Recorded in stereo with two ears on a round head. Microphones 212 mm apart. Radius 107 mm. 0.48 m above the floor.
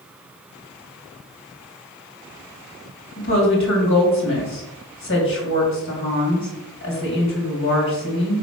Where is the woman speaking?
60° left (ahead or behind), 3 m.